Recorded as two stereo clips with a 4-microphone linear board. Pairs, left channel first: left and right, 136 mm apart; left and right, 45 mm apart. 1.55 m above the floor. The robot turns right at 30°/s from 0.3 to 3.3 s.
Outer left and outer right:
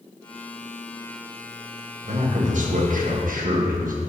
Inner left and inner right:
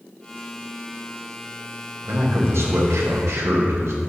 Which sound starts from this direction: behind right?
A man speaking, at 2.0 s.